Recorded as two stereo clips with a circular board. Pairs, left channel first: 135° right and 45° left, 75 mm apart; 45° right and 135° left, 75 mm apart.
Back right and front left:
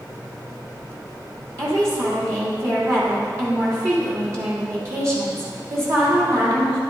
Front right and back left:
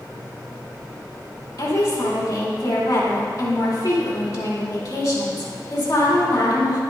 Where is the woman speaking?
5° right, 2.5 m.